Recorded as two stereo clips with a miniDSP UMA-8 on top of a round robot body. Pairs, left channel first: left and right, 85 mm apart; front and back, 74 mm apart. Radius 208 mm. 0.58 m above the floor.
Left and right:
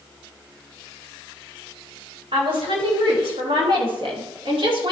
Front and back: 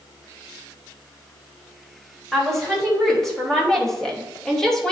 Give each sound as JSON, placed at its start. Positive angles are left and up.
{"t": 2.3, "sound": "a woman speaking", "azimuth_deg": -85, "distance_m": 4.0}